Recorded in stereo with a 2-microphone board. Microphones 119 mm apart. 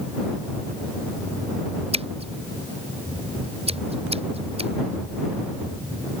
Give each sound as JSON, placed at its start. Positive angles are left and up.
{"t": 1.9, "sound": "scissors", "side_deg": -55}